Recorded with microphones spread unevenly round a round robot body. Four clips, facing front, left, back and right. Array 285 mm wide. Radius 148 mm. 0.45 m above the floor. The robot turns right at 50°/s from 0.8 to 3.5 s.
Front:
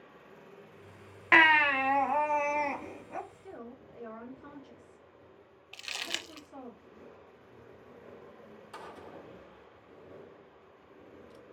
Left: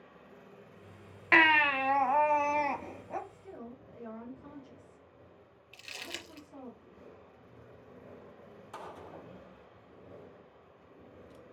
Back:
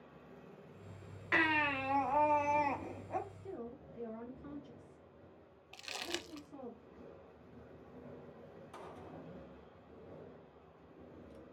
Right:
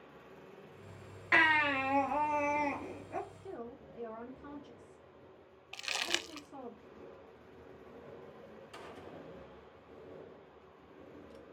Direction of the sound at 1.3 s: 25° left.